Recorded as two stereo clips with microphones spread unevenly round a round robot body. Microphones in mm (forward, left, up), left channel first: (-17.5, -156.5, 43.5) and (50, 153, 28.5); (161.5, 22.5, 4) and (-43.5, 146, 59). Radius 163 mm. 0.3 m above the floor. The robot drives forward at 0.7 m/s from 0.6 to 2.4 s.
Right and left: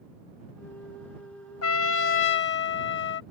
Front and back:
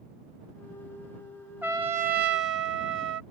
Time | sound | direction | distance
1.6 | a trumpet | 115° right | ?